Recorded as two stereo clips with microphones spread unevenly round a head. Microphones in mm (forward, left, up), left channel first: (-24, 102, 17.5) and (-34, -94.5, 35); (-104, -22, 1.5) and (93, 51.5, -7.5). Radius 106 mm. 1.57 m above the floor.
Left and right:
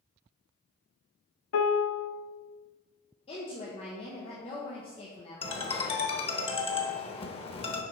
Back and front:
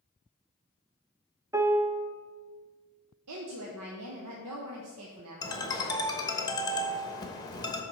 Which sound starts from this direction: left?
A piano, at 1.5 s.